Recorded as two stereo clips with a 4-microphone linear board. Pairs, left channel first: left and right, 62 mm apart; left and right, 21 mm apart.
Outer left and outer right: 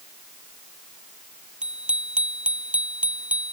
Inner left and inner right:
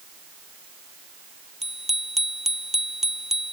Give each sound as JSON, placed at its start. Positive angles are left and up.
{"t": 1.6, "sound": "a bicycle bell", "side_deg": -15}